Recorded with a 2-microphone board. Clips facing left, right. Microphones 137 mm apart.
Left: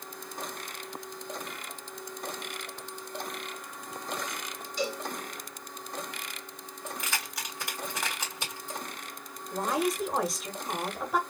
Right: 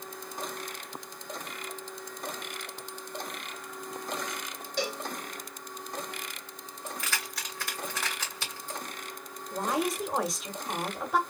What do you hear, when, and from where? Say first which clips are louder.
4.8 s a cowbell: even; 80° right, 1.6 m
6.9 s keys jangling: even; 20° left (ahead or behind), 2 m
9.5 s a woman speaking: left 1 dB; centre (ahead or behind), 1.5 m